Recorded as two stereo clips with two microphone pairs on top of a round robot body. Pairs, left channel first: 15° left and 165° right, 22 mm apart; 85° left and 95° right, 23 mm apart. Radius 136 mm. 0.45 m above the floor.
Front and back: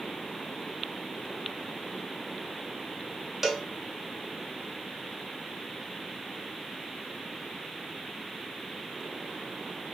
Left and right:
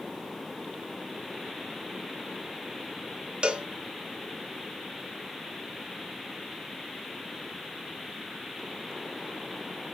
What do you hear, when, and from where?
3.4 s a cowbell: 85° right, 1.0 m